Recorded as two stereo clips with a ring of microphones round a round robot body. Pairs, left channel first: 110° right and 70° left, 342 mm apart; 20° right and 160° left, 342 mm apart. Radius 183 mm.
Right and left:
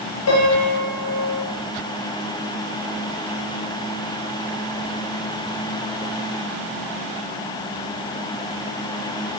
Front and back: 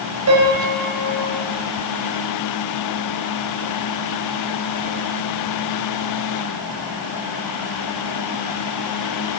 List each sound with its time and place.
0.3 s a piano: 155° right, 4 m